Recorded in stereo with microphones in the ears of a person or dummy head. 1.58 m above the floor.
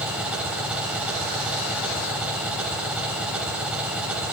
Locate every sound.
0.0 s an engine running: 5° right (ahead or behind), 1.9 m